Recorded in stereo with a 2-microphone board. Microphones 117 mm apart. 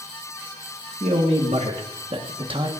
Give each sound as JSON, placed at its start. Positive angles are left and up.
{"t": 1.0, "sound": "a man speaking", "side_deg": -80, "distance_m": 2.5}